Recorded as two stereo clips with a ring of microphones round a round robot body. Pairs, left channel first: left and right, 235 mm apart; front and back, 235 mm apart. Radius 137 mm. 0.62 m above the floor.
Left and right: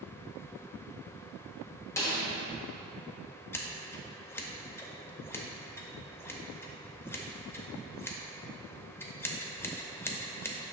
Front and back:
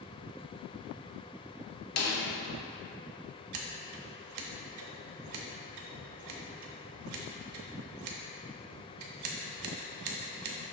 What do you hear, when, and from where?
2.0 s a snare drum: 10° left, 1.2 m
3.5 s scissors: 170° left, 0.8 m